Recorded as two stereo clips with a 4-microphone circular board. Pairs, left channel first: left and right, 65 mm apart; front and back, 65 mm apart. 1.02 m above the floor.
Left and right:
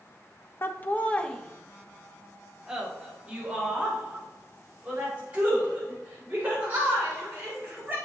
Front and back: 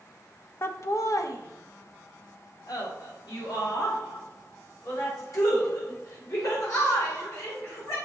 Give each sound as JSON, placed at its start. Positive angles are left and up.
{"t": 0.6, "sound": "laughter", "azimuth_deg": 40, "distance_m": 0.9}